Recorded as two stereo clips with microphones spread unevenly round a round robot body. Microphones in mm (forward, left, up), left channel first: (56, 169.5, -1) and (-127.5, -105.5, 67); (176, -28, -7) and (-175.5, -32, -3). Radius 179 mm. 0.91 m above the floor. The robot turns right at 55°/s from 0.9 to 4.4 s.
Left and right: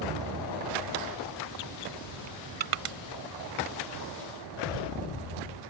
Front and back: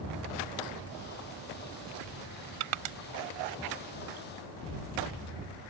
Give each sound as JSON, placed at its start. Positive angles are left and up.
{"t": 2.6, "sound": "crushing", "azimuth_deg": 175}